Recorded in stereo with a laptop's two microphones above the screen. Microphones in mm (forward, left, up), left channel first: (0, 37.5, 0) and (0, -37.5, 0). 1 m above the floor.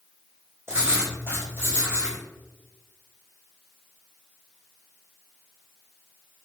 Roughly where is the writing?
Right.